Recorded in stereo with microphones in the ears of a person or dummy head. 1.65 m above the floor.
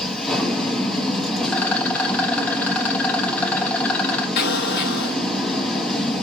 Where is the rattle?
10° left (ahead or behind), 0.8 m.